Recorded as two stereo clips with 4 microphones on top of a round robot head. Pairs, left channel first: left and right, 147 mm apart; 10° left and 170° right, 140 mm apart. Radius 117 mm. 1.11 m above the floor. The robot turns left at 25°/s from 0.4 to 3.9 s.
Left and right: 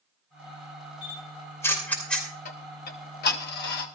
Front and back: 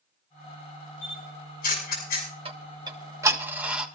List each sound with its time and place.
1.0 s a camera shutter: 35° left, 6 m; by 2.3 s straight ahead, 6 m
2.5 s ticking: 135° left, 1.6 m; by 3.9 s 100° left, 1.6 m